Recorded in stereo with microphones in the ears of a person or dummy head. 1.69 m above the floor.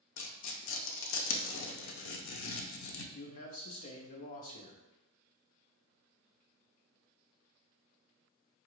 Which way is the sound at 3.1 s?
40° left (ahead or behind).